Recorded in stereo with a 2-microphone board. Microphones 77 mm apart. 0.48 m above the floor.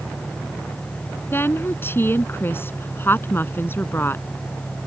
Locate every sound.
0.0 s an engine running: 10° right (ahead or behind)
1.3 s a woman speaking: 30° left (ahead or behind)